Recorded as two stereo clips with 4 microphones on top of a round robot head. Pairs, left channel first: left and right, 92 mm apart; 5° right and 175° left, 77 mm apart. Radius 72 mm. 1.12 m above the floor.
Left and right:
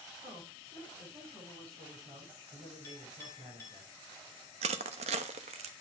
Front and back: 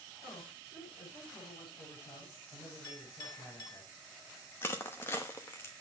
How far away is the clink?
About 5.5 m.